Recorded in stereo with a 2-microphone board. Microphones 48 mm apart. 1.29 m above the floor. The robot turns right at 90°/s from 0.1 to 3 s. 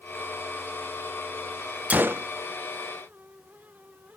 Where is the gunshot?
150° right, 0.5 m; by 2.3 s 120° right, 0.5 m.